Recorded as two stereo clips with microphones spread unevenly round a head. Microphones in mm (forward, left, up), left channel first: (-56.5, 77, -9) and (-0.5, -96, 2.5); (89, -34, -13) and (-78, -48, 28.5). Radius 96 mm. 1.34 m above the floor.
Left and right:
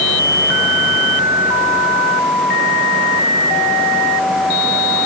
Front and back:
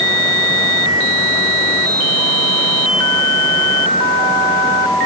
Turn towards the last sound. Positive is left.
No sound to turn to.